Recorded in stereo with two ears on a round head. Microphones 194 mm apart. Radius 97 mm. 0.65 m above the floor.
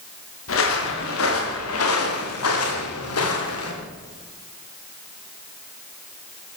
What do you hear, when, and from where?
0.5 s footsteps: 75° left (ahead or behind), 9 m